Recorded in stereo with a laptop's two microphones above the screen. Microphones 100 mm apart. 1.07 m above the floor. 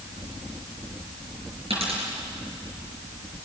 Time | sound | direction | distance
1.7 | a dropped coin | 80° right | 6 m